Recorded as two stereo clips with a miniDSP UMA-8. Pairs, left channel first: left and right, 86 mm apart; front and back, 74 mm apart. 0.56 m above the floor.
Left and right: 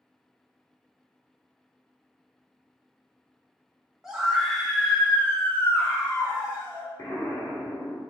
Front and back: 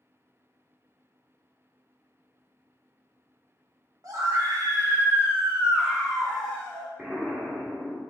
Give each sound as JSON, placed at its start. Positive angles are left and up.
{"t": 4.0, "sound": "a scream", "azimuth_deg": -175, "distance_m": 1.4}
{"t": 7.0, "sound": "an explosion", "azimuth_deg": 115, "distance_m": 1.3}